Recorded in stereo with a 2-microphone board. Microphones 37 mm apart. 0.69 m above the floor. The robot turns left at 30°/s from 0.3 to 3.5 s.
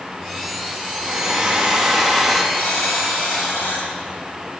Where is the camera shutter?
I don't hear a camera shutter.